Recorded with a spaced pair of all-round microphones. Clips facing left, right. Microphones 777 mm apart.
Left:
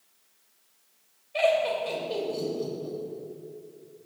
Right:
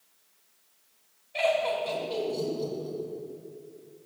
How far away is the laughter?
About 2 m.